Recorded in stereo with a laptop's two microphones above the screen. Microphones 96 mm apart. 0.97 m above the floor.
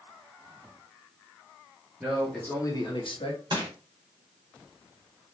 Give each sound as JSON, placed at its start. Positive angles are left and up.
{"t": 2.0, "sound": "a man speaking", "side_deg": -10, "distance_m": 1.1}
{"t": 3.5, "sound": "crushing", "side_deg": -50, "distance_m": 1.9}